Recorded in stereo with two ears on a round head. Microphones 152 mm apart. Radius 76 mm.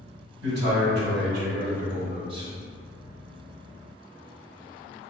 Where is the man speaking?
70° right (ahead or behind), 1.2 m; by 2.5 s 20° right (ahead or behind), 0.5 m.